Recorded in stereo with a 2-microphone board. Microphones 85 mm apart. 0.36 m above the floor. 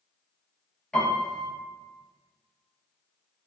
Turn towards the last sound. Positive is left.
turn(degrees=10)  # may be behind; listen again after turning